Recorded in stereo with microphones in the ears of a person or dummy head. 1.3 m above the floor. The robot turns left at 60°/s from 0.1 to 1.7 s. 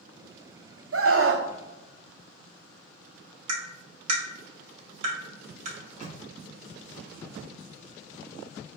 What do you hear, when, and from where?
0.9 s a scream: 85° right, 0.8 m; by 1.5 s 115° right, 0.8 m
3.5 s tapping: 35° right (ahead or behind), 1.9 m
5.8 s a microwave: 40° right (ahead or behind), 0.7 m